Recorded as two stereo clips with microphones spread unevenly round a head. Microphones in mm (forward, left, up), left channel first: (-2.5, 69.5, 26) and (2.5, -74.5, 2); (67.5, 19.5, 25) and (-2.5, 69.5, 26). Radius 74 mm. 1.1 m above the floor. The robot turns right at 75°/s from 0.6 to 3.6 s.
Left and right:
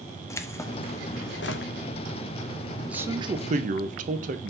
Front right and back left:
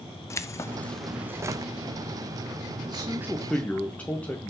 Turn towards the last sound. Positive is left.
turn(degrees=-115)